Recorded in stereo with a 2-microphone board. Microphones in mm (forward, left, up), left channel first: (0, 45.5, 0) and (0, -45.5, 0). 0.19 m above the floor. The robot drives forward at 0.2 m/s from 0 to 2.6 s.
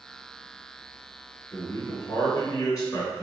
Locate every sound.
1.5 s a man speaking: 50° left (ahead or behind), 1.5 m; by 3.2 s 45° left (ahead or behind), 1.6 m